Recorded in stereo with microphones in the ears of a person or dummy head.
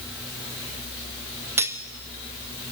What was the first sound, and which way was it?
Cutlery clinking, 10° right (ahead or behind).